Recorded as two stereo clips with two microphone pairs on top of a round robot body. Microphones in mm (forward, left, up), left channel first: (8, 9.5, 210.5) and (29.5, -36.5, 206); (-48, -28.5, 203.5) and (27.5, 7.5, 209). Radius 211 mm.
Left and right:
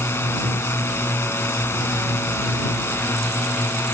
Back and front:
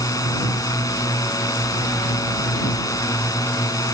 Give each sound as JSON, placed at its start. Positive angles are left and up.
{"t": 0.0, "sound": "a drone", "azimuth_deg": 155}